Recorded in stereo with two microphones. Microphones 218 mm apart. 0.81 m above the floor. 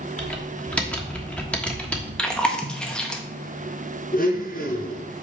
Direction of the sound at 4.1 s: 45° left (ahead or behind).